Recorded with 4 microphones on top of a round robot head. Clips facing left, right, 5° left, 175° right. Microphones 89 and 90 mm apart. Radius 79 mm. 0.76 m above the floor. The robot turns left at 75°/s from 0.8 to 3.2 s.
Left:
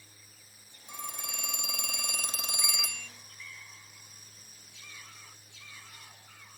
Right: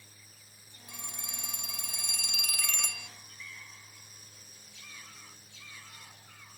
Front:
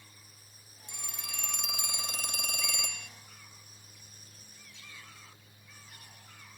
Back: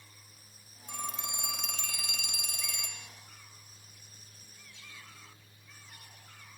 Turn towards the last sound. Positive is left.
turn(degrees=-25)